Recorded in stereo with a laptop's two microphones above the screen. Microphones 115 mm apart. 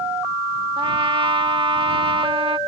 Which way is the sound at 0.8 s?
50° right (ahead or behind).